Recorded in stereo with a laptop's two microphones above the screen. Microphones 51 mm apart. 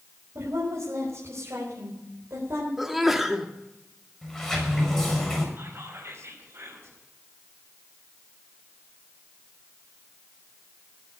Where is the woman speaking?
75° right (ahead or behind), 5.5 m; by 2.7 s 65° right (ahead or behind), 4 m.